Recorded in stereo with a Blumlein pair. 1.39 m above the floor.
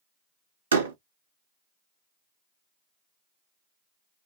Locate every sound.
0.7 s a door slam: 70° right, 0.8 m